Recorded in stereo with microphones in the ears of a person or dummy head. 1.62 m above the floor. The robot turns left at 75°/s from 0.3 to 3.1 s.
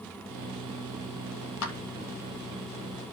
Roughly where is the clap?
Left.